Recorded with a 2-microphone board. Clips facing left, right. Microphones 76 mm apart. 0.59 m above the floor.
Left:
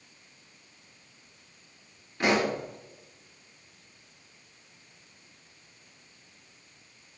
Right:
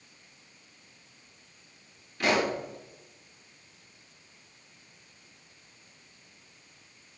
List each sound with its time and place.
2.2 s a pop: 25° left (ahead or behind), 4 m